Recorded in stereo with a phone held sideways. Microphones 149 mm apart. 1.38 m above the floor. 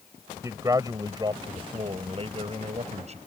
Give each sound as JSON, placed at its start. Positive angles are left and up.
{"t": 0.4, "sound": "a man speaking", "side_deg": -20}